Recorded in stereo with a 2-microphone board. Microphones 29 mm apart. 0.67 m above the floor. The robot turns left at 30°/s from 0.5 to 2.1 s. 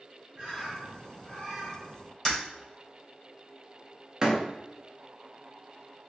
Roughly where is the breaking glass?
Left.